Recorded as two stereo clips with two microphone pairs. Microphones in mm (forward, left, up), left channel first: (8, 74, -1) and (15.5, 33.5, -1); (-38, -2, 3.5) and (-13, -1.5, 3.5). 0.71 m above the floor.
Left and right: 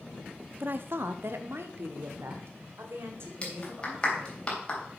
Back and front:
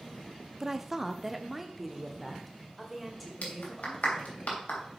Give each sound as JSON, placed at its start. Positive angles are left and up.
{"t": 0.6, "sound": "a woman speaking", "azimuth_deg": -70, "distance_m": 0.6}
{"t": 3.4, "sound": "a clap", "azimuth_deg": 165, "distance_m": 3.0}